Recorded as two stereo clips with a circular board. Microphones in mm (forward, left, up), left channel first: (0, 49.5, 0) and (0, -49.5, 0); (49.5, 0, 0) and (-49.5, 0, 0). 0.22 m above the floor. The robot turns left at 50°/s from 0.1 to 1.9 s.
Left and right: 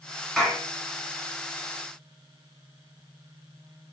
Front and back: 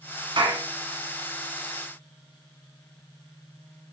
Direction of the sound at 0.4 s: 175° left.